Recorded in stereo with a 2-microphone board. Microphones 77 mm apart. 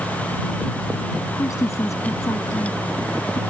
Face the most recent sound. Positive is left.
turn(degrees=45)  # may be behind; listen again after turning